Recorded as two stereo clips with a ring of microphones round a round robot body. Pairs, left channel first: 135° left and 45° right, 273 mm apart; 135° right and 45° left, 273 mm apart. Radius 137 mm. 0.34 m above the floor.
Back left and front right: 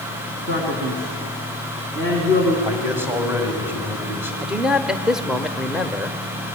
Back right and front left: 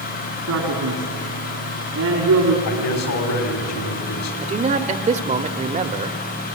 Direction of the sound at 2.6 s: 125° right.